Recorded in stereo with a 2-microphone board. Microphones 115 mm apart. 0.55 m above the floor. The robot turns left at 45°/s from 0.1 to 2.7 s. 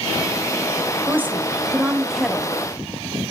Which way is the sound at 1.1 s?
20° right (ahead or behind).